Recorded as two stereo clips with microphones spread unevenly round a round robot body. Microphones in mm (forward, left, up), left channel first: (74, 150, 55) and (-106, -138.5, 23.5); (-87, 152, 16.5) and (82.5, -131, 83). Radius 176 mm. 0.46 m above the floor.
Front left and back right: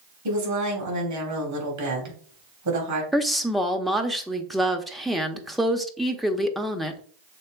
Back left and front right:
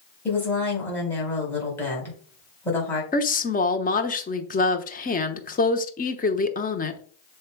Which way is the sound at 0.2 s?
160° right.